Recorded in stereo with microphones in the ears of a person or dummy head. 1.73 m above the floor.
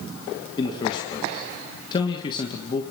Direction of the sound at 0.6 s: 25° left (ahead or behind).